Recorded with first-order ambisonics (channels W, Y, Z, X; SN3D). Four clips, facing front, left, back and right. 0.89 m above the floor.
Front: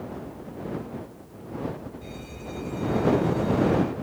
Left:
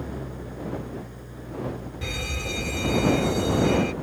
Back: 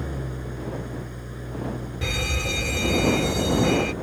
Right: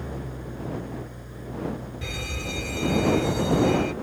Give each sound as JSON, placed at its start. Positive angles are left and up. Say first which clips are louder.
{"t": 0.0, "sound": "an engine running", "louder": "left 1 dB, back 4 dB", "azimuth_deg": -175}
{"t": 2.0, "sound": "a fire alarm", "louder": "left 3 dB, back 13 dB", "azimuth_deg": 175}